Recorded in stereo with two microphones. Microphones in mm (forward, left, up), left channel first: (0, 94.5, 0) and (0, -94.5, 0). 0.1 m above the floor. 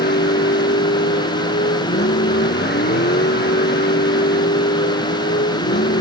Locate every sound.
0.0 s a vehicle: 65° left (ahead or behind)